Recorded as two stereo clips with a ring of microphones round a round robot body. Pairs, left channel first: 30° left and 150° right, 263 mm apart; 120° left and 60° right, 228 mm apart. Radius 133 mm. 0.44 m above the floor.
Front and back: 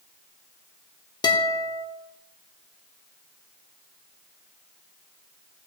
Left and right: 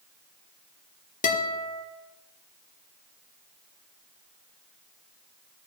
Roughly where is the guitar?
Left.